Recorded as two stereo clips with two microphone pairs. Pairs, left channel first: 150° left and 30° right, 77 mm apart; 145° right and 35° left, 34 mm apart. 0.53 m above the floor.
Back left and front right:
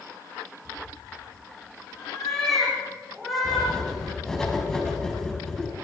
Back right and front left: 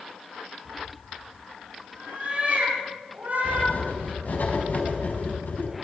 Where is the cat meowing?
80° left, 9 m; by 3.8 s 60° left, 10.5 m.